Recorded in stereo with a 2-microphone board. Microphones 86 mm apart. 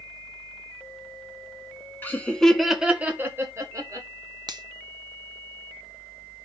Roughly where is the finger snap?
Right.